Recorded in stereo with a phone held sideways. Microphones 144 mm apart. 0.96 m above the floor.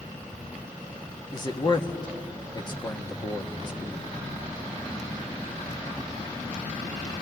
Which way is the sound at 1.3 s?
30° left (ahead or behind).